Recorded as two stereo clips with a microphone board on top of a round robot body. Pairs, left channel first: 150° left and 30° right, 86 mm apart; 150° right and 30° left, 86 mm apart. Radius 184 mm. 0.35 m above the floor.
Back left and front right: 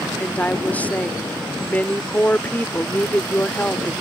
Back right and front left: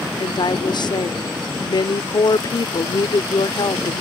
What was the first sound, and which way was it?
A woman speaking, 140° right.